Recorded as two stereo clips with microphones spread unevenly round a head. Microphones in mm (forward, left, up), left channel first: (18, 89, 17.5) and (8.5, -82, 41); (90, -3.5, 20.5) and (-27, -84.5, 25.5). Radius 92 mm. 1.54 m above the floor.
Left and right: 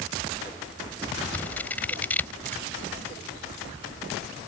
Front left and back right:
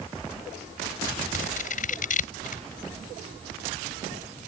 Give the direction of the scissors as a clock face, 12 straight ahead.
12 o'clock.